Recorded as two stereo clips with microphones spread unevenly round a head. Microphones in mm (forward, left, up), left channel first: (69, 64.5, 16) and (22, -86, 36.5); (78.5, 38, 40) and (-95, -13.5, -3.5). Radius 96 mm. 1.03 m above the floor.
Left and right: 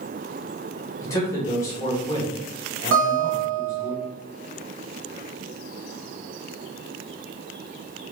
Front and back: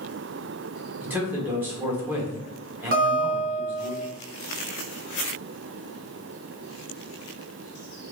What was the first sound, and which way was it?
A man speaking, 130° left.